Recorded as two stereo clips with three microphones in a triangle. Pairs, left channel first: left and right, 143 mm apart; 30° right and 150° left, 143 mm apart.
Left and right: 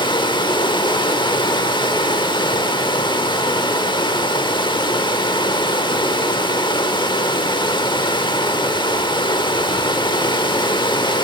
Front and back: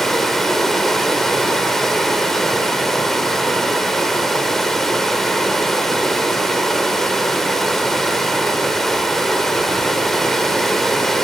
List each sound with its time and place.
0.0 s running water: 55° left, 1.1 m